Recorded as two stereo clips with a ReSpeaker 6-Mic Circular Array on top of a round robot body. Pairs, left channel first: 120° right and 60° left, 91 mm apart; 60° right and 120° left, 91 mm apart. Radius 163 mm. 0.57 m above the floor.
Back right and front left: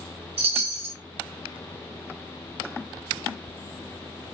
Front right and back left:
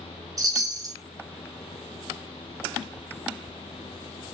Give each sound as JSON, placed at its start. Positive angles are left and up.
{"t": 0.4, "sound": "a chime", "azimuth_deg": 65, "distance_m": 0.6}